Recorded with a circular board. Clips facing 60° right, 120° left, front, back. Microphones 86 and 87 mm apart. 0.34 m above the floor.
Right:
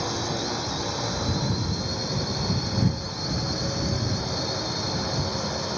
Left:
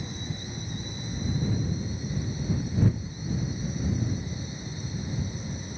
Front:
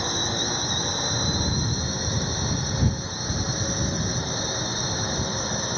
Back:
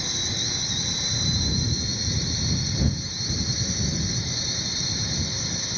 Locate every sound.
0.0 s a drone: 45° right